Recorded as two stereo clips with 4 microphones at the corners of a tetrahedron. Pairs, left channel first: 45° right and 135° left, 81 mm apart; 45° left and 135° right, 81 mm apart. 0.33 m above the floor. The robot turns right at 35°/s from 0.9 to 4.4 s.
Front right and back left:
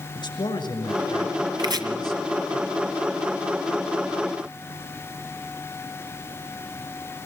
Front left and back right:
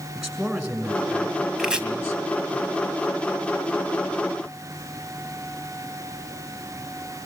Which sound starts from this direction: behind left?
Chopping, at 1.6 s.